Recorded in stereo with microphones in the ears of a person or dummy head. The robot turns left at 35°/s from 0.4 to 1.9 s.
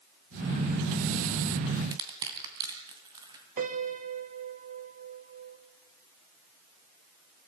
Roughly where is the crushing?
Centre.